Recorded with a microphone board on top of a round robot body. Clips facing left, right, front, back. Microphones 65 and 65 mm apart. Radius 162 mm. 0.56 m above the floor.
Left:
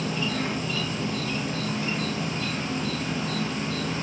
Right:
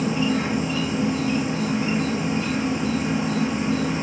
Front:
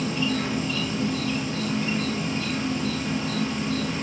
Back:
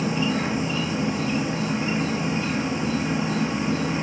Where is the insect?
140° right, 1.1 m.